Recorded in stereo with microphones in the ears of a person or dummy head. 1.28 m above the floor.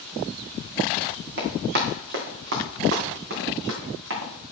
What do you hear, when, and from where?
1.4 s running footsteps: 55° right (ahead or behind), 3 m; by 4.3 s 65° right (ahead or behind), 5 m